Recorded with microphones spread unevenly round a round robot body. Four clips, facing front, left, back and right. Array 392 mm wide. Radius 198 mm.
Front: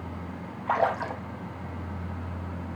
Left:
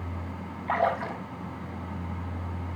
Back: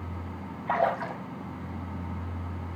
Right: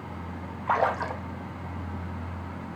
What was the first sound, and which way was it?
A splash, 105° right.